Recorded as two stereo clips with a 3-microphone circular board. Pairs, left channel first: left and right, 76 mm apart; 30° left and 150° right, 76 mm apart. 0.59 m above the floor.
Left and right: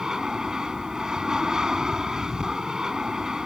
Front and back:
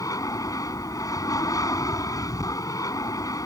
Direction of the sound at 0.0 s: 5° right.